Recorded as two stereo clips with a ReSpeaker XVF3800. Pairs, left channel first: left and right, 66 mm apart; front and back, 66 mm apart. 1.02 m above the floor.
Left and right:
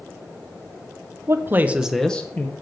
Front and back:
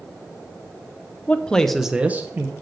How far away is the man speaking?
About 0.9 m.